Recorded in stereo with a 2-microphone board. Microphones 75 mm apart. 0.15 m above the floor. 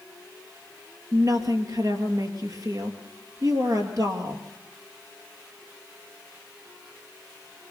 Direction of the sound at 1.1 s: 50° right (ahead or behind).